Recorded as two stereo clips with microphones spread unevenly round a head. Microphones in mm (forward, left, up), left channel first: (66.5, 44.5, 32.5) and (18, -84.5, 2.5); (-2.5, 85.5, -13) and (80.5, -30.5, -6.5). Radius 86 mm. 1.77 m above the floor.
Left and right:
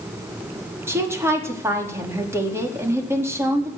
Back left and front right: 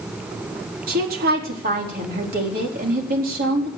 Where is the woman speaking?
40° right, 4.5 m.